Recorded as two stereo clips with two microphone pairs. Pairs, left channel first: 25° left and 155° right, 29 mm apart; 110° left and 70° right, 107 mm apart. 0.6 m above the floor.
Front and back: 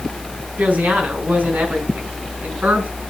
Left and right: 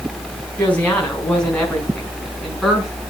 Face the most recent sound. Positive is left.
turn(degrees=-160)